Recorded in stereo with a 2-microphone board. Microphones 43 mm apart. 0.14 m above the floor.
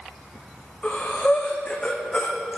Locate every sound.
0.8 s breathing: 25° left (ahead or behind), 1.8 m